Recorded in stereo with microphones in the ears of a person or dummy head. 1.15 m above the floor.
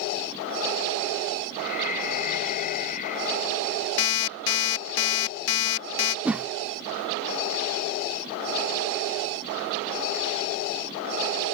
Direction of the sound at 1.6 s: 50° left (ahead or behind).